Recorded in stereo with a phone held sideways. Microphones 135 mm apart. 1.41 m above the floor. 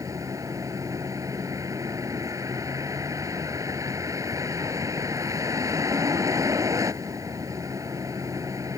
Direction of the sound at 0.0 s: 25° right (ahead or behind).